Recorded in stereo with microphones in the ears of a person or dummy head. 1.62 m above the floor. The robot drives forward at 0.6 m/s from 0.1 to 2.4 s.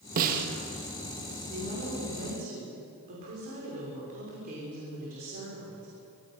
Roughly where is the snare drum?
Right.